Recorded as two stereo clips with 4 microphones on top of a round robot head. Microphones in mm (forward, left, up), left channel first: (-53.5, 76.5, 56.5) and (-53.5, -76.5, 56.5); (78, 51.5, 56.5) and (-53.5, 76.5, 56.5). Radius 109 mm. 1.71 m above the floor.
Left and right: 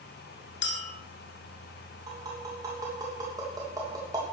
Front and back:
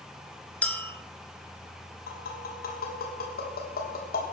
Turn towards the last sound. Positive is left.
turn(degrees=-20)